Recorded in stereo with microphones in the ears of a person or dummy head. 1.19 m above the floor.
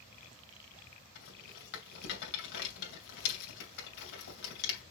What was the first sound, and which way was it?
A rattle, 70° left (ahead or behind).